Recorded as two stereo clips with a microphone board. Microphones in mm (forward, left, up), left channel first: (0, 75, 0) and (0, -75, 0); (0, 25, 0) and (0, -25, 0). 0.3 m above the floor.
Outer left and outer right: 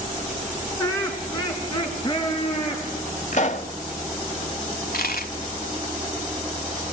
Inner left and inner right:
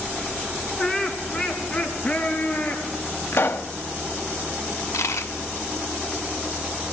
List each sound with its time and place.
0.8 s laughter: 20° left (ahead or behind), 2.5 m; by 2.9 s 35° left (ahead or behind), 4.5 m
3.3 s a pop: 55° left (ahead or behind), 0.5 m
4.7 s a dropped coin: 80° left, 0.7 m